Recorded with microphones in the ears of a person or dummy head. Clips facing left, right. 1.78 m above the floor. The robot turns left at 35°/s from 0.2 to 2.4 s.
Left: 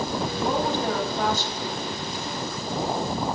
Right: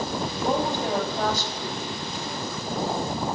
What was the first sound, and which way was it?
A woman speaking, straight ahead.